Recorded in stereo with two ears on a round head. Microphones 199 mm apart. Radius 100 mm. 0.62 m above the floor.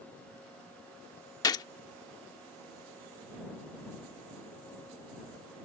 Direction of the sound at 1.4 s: 15° left (ahead or behind).